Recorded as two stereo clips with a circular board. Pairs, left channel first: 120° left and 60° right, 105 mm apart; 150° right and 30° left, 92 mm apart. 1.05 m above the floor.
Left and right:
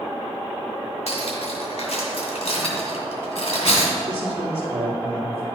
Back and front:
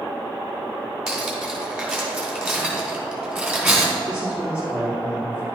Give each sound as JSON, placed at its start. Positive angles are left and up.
{"t": 1.1, "sound": "cutlery clinking", "azimuth_deg": 115, "distance_m": 2.0}
{"t": 4.1, "sound": "a man speaking", "azimuth_deg": -45, "distance_m": 1.8}